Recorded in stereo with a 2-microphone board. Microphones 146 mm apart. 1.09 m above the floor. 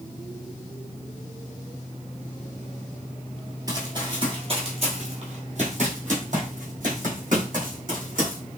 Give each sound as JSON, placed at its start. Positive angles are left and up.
{"t": 3.7, "sound": "running footsteps", "side_deg": -25, "distance_m": 1.2}